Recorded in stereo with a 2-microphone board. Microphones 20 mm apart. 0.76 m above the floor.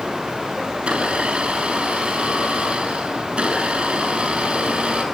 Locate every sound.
0.7 s a blender: 85° right, 7 m